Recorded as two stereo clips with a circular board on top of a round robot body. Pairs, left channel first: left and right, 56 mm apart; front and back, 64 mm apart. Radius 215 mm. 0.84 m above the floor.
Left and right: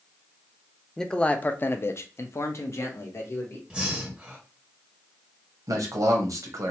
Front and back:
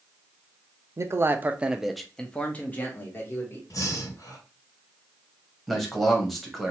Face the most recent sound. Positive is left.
turn(degrees=-85)